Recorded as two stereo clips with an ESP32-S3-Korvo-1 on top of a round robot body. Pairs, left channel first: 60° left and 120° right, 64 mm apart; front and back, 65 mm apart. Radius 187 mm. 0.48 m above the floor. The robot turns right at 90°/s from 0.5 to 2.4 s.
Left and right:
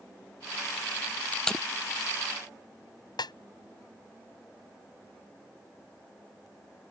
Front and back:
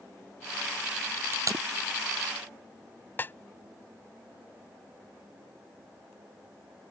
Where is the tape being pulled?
125° left; by 1.6 s 155° left.